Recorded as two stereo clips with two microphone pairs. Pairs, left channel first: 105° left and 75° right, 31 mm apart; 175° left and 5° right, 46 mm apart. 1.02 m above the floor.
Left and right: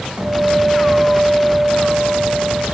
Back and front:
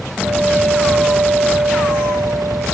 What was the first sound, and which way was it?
A guitar, 30° right.